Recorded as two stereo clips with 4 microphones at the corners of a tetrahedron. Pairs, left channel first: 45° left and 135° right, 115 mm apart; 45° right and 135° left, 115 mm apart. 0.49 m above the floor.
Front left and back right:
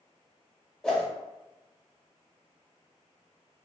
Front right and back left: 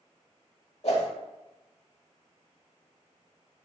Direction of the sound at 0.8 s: 35° right.